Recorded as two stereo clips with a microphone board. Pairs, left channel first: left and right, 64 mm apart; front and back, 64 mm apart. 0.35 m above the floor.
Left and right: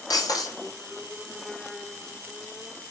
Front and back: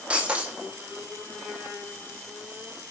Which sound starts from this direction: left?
Breaking glass, at 0.1 s.